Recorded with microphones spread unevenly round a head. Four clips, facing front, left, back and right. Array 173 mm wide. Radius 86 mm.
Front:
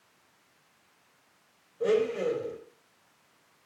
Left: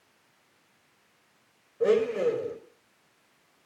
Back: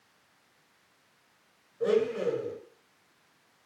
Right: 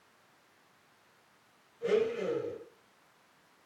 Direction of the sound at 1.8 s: 85° left.